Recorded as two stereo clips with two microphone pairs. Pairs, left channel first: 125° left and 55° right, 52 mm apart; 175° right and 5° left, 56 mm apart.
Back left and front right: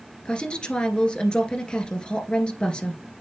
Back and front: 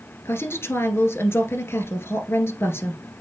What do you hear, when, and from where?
0.2 s a woman speaking: 170° right, 1.7 m